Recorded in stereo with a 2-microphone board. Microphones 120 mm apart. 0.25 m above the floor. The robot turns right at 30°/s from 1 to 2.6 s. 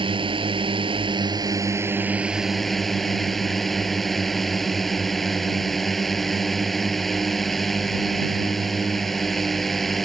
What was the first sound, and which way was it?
A drone, 45° right.